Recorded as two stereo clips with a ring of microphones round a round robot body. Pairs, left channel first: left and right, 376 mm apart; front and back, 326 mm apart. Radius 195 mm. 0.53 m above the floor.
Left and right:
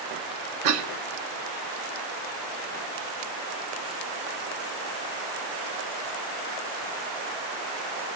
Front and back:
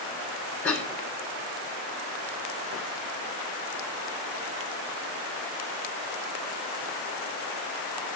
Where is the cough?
85° right, 1.2 m.